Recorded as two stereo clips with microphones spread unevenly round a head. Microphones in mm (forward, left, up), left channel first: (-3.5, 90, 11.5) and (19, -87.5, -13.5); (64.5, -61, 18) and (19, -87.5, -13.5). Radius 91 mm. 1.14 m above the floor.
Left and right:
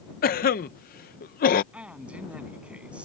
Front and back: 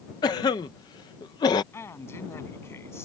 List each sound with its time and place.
0.2 s a cough: 55° left
1.7 s a man speaking: straight ahead